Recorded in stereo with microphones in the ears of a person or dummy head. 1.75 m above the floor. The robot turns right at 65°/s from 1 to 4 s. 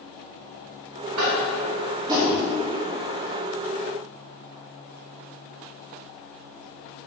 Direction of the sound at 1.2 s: 85° right.